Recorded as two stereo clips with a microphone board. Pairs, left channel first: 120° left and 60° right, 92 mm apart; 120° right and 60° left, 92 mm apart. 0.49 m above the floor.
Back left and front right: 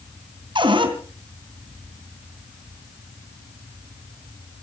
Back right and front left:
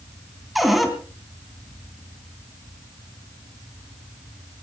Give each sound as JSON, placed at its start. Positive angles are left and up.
{"t": 0.6, "sound": "a cupboard door", "azimuth_deg": -30, "distance_m": 3.0}